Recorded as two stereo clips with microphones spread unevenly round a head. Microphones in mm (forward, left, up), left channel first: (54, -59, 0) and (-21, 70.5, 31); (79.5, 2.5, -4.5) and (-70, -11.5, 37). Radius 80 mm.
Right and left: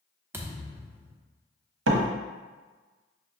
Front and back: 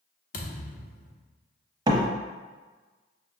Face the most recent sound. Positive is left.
turn(degrees=115)